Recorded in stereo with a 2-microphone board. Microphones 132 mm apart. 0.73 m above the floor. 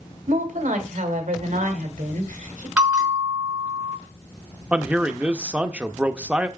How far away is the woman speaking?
About 1.9 m.